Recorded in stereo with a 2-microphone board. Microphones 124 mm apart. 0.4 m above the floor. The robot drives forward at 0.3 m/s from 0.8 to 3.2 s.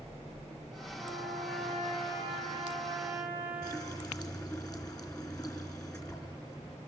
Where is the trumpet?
15° right (ahead or behind), 9.5 m.